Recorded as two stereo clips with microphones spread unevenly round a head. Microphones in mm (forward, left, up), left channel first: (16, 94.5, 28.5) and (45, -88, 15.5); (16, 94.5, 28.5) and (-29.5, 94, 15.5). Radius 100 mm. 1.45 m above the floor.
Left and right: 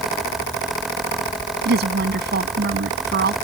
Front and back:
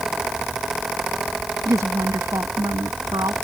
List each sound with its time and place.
1.6 s a woman speaking: 125° right